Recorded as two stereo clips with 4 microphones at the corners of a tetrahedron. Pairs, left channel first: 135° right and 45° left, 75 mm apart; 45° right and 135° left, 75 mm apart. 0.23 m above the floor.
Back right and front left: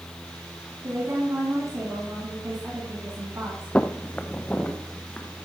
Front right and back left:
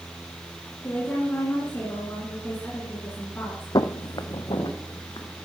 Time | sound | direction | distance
0.8 | a woman speaking | 10° left | 2.5 m
3.8 | footsteps | 65° right | 0.5 m